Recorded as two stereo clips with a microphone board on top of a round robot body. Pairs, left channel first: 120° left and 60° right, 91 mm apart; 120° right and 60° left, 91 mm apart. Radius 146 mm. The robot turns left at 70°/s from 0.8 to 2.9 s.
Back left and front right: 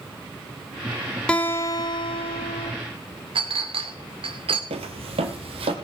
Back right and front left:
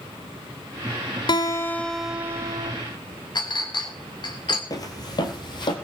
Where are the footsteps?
65° right, 1.4 m; by 5.7 s 80° right, 2.5 m.